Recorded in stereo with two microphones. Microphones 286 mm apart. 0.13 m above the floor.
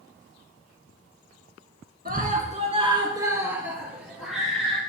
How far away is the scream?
About 1.5 m.